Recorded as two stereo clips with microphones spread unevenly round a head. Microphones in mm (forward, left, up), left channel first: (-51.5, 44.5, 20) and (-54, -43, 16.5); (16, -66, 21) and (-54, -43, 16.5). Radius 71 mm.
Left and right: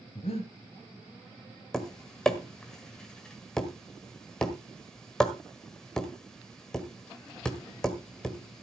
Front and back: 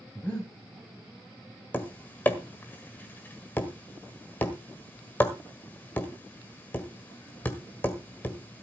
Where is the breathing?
60° left, 2.5 m.